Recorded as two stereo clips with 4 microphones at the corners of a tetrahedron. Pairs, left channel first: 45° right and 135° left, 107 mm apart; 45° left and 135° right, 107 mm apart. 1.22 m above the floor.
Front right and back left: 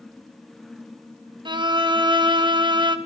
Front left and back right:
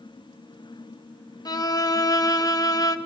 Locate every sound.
1.4 s a violin: 95° left, 1.4 m